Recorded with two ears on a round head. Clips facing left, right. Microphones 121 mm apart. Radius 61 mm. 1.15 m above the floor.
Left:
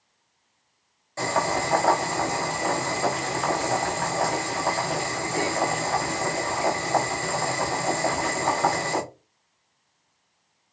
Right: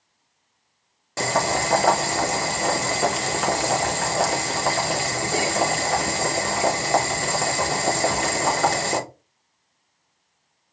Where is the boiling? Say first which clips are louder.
Right 2 dB; 80° right, 1.1 m.